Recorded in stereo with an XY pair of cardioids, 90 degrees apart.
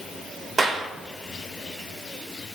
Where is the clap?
45° right, 4 m.